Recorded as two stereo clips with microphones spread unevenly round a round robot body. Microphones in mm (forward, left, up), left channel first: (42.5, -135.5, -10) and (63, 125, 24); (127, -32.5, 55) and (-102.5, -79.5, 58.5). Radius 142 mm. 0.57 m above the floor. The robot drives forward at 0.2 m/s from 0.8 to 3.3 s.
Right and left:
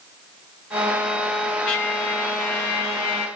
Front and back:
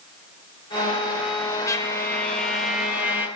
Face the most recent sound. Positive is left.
turn(degrees=-90)